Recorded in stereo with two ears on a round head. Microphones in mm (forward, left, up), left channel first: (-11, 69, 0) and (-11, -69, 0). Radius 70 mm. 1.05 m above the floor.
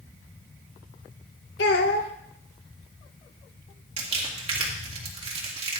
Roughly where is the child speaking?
Left.